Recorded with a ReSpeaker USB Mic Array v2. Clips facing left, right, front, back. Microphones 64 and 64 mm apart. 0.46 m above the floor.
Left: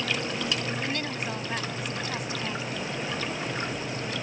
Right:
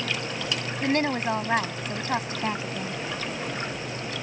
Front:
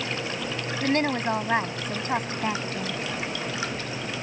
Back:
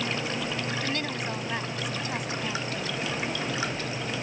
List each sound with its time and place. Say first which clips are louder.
0.8 s a woman speaking: right 7 dB, front 7 dB; 45° right